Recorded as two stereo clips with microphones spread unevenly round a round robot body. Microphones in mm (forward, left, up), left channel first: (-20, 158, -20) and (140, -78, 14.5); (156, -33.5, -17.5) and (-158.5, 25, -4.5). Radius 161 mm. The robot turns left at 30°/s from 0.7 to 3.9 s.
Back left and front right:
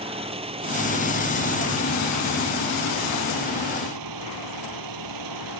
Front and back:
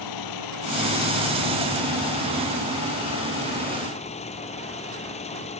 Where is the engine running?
15° left; by 5.6 s 80° right.